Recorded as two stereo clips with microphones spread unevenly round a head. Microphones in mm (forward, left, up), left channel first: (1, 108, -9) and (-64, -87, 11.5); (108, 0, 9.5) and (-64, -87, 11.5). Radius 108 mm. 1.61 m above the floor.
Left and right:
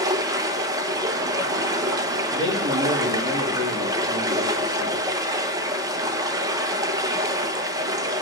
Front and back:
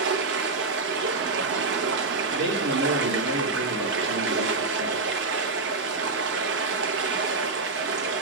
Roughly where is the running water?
Behind.